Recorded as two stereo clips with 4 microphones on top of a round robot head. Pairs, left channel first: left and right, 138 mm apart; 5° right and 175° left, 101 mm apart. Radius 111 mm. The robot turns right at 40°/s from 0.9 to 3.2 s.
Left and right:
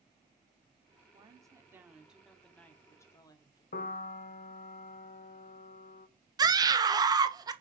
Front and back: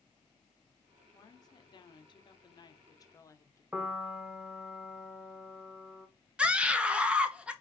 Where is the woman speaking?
45° right, 0.9 m; by 3.6 s 35° left, 0.9 m.